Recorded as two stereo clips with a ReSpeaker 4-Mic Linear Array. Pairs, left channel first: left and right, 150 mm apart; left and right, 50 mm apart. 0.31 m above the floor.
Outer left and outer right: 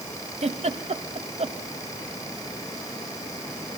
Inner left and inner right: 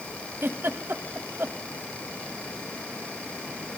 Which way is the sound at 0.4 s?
50° right (ahead or behind).